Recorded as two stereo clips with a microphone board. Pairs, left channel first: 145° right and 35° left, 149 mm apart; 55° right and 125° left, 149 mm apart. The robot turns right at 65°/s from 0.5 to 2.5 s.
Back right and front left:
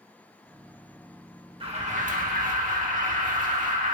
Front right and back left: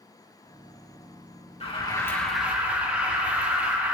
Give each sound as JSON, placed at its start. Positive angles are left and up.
{"t": 1.6, "sound": "an alarm", "azimuth_deg": -15, "distance_m": 2.0}